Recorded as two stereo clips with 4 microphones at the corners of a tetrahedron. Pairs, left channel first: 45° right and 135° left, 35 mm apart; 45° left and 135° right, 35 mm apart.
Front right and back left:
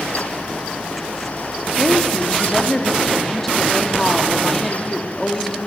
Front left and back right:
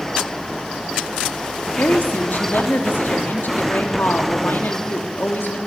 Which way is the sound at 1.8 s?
35° left.